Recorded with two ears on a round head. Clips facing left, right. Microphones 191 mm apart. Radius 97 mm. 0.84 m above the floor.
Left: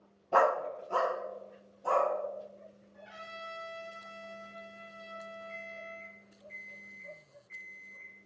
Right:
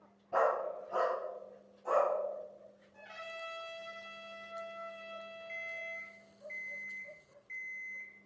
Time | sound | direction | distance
0.3 | a dog barking | 65° left (ahead or behind) | 0.5 m
2.9 | a trumpet | 70° right (ahead or behind) | 2.5 m
5.5 | an alarm clock | 80° right | 3 m